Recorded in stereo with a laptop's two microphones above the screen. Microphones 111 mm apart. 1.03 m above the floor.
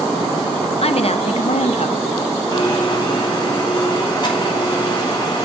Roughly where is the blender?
Left.